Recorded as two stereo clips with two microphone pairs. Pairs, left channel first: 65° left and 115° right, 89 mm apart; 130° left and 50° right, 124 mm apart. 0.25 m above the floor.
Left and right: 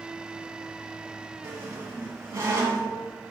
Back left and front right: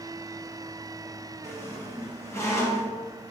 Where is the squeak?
165° right, 1.1 m.